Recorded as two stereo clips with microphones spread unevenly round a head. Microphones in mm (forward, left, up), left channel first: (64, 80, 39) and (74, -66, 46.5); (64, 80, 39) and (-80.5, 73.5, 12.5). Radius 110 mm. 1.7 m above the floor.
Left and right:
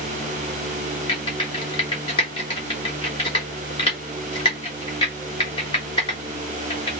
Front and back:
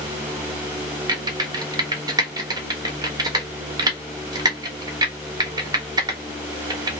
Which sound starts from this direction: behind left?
Typing on a keyboard, at 1.1 s.